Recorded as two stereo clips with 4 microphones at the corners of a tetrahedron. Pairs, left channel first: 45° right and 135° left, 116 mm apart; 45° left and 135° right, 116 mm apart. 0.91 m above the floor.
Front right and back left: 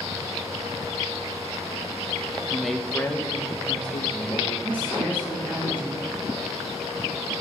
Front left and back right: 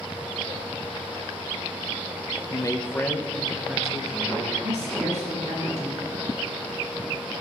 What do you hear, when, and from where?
2.5 s a man speaking: 55° left, 0.9 m; by 4.5 s 60° right, 1.4 m
4.6 s a woman speaking: 150° right, 6 m